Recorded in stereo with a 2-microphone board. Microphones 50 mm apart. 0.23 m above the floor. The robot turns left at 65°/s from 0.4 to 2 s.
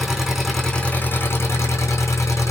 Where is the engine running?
175° right, 4.5 m; by 2.5 s 80° left, 4.5 m.